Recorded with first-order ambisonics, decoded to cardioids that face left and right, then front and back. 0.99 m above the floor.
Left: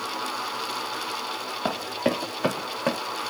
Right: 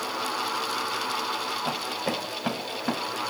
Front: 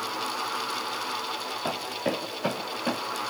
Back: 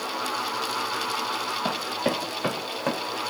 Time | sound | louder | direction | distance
1.6 | running footsteps | left 2 dB, back 1 dB | 100° left | 3.5 m